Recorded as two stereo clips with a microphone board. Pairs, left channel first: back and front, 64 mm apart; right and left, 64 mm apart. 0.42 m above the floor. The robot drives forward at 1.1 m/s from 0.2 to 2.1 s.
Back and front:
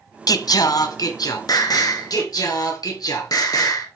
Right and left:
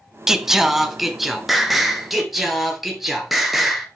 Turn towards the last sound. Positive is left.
turn(degrees=180)